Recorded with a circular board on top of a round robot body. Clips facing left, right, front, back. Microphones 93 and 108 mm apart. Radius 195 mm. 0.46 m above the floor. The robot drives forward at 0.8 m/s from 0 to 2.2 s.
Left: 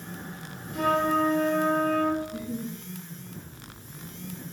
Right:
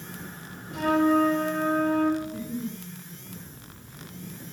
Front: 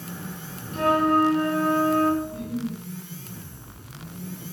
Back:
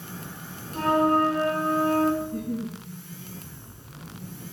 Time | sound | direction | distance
0.7 | a flute | 125° right | 2 m
2.2 | a giggle | 175° left | 4 m